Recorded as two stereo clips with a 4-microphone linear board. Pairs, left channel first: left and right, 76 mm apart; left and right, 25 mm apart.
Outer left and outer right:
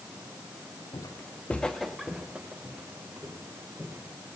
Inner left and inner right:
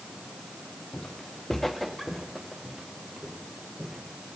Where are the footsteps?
55° left (ahead or behind), 0.6 m; by 4.0 s 25° right (ahead or behind), 2.5 m.